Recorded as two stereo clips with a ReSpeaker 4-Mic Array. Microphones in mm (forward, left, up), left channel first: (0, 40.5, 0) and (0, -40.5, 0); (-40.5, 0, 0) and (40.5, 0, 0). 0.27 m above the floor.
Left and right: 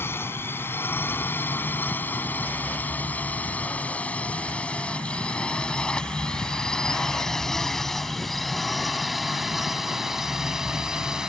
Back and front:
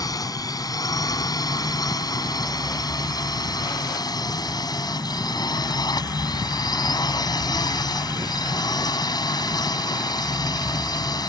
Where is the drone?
150° left; by 11.3 s 170° right.